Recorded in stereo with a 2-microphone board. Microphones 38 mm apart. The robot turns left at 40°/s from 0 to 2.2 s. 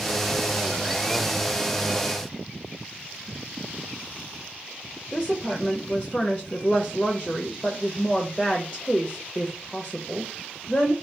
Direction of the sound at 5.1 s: 15° left (ahead or behind).